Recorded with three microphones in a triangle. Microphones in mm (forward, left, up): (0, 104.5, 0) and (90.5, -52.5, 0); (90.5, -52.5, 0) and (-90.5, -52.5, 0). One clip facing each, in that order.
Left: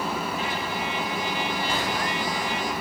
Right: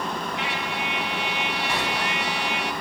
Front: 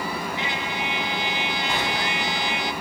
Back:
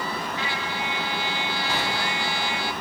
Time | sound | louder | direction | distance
0.4 | a trumpet | even, front 1 dB | 70° right | 1.6 m